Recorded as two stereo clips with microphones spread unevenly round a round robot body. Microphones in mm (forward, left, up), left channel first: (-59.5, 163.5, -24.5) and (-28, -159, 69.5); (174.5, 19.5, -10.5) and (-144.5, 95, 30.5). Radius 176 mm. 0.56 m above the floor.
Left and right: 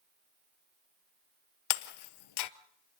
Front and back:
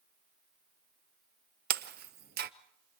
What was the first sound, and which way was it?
Breaking glass, 115° left.